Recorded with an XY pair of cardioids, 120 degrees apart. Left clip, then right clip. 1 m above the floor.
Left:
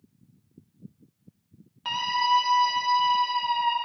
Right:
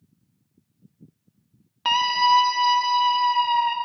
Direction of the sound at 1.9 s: 60° right.